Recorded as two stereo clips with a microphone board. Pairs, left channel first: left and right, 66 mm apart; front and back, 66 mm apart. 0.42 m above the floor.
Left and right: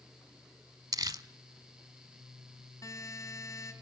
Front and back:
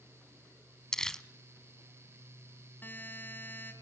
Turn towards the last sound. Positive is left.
turn(degrees=60)